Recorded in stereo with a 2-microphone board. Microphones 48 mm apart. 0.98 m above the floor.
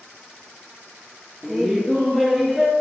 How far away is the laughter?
About 0.6 m.